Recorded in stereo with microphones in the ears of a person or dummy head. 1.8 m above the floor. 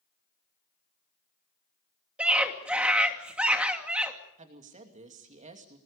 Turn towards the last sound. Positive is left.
turn(degrees=-35)  # may be behind; listen again after turning